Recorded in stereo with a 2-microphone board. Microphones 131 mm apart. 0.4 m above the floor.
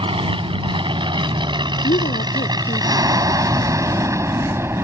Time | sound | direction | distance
0.0 | an aircraft | 40° right (ahead or behind) | ?
1.8 | a woman speaking | 80° left | ?